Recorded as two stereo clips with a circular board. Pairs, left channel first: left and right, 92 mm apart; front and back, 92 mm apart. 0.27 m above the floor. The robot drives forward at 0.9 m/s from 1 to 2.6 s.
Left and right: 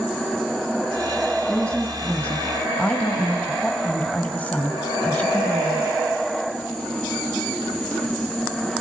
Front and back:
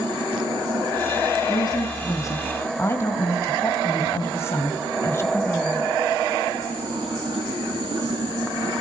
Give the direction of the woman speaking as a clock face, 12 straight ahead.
12 o'clock.